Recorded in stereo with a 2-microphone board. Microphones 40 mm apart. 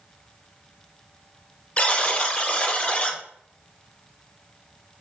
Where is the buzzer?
30° left (ahead or behind), 0.5 m.